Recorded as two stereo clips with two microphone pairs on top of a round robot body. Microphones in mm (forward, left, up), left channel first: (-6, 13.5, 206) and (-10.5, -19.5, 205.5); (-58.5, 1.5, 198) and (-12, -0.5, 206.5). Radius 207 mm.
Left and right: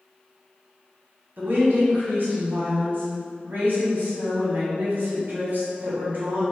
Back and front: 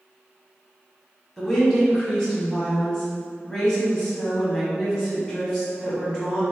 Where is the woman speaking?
120° right, 1.3 m.